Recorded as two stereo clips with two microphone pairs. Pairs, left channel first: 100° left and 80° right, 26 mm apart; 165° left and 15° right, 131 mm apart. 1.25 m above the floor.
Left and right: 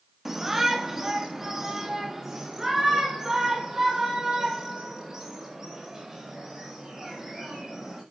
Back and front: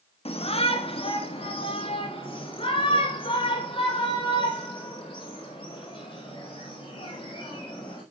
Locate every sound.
0.2 s a shout: 160° right, 1.6 m; by 8.0 s 150° right, 6.5 m